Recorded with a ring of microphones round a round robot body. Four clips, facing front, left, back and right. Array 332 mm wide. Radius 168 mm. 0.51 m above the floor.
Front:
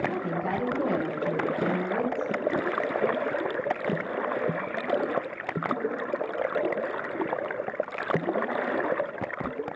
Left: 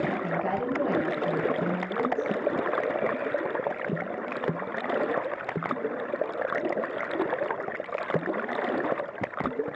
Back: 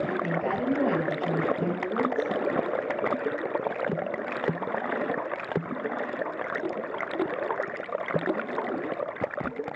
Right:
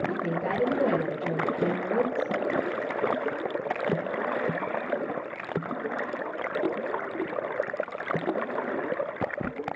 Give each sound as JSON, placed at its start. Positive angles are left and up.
{"t": 0.1, "sound": "a woman speaking", "azimuth_deg": -125, "distance_m": 9.0}